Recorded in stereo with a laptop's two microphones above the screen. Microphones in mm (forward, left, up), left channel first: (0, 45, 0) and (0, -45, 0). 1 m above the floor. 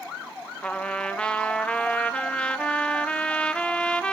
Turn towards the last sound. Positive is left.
turn(degrees=10)  # may be behind; listen again after turning